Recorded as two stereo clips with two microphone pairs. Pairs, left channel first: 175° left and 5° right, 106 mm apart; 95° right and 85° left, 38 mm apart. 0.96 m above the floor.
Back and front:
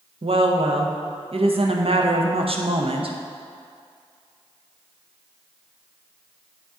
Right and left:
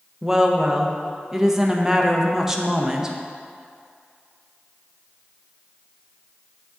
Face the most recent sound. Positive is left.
turn(degrees=5)